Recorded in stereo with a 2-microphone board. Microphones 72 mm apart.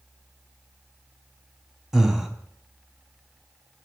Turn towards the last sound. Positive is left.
turn(degrees=-5)  # may be behind; listen again after turning